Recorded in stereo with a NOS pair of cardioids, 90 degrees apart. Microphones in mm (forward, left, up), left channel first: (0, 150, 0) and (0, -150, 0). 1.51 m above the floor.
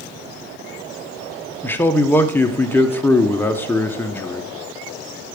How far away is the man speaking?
About 1.0 m.